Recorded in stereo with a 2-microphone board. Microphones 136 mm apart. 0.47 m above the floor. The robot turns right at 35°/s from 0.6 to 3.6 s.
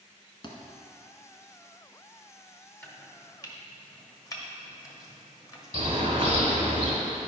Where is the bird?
40° right (ahead or behind), 2 m.